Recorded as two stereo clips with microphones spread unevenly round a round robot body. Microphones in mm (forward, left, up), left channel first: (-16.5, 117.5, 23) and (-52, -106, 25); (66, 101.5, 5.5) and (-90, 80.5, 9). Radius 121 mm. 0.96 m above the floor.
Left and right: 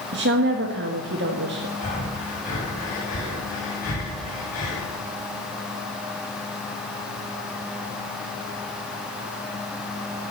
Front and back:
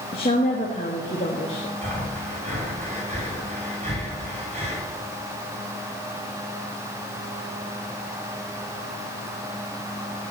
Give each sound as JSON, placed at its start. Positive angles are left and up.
{"t": 0.1, "sound": "a woman speaking", "azimuth_deg": -55, "distance_m": 1.5}
{"t": 1.8, "sound": "breathing", "azimuth_deg": 140, "distance_m": 7.0}